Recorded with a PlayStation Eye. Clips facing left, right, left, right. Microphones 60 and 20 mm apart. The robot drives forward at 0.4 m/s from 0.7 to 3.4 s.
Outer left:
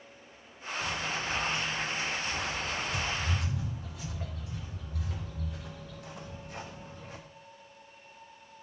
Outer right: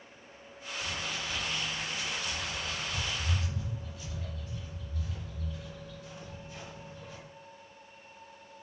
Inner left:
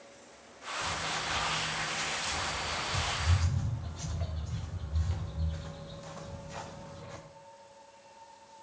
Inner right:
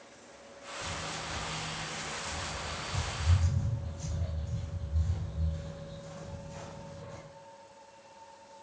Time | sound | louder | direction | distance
0.8 | footsteps | outer left 3 dB, inner left 4 dB | 80° left | 5.5 m